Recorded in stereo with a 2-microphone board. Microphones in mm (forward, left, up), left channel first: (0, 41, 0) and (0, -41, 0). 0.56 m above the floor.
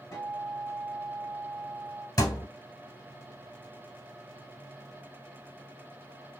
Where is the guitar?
45° left (ahead or behind), 1.3 m.